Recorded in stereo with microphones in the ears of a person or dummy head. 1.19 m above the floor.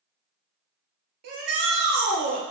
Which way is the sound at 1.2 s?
50° right (ahead or behind).